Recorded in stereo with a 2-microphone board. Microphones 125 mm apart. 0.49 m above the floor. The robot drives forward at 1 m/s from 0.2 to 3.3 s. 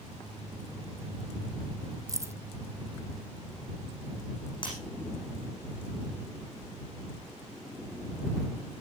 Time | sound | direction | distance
2.1 | keys jangling | 25° right (ahead or behind) | 0.6 m
4.6 | breaking glass | 40° left (ahead or behind) | 9.5 m